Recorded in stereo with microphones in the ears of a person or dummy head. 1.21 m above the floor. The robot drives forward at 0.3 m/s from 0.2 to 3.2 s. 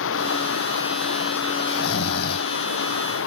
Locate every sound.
0.0 s running water: 85° left
1.7 s snoring: 55° left (ahead or behind)